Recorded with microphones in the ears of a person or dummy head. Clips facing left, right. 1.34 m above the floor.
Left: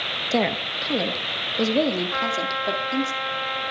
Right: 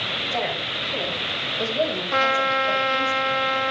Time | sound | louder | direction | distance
0.3 | a woman speaking | left 6 dB | 60° left (ahead or behind) | 1.8 m
2.1 | a trumpet | right 5 dB | 50° right (ahead or behind) | 1.1 m